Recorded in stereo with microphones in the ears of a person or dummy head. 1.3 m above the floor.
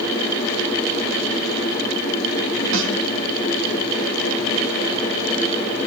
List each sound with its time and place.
2.7 s a snare drum: 70° right (ahead or behind), 2 m